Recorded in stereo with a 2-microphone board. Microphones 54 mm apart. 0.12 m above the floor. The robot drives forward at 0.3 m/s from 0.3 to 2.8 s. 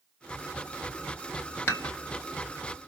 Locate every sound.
1.7 s dishes clattering: 50° left (ahead or behind), 1.7 m